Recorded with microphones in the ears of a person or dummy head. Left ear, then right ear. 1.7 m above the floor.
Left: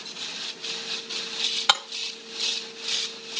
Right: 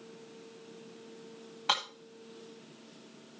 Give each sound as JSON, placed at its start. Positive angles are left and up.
{"t": 1.7, "sound": "breaking glass", "side_deg": 35, "distance_m": 1.4}